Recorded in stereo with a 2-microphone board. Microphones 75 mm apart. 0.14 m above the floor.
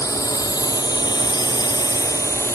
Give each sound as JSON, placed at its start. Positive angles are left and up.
{"t": 0.0, "sound": "a drone", "side_deg": 50}